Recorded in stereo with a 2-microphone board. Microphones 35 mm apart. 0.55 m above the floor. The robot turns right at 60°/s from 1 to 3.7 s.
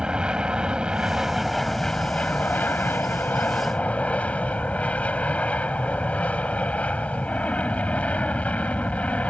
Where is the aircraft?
30° right; by 9.3 s 130° left.